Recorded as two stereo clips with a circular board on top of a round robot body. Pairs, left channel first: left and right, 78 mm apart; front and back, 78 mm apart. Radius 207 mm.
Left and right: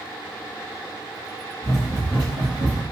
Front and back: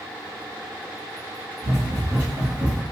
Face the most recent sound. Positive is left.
turn(degrees=-90)